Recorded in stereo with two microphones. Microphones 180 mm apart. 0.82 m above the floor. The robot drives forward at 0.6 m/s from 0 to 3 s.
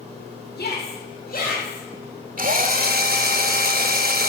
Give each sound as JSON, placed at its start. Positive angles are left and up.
{"t": 0.6, "sound": "a shout", "side_deg": 60, "distance_m": 2.5}
{"t": 2.4, "sound": "a drill", "side_deg": -50, "distance_m": 1.0}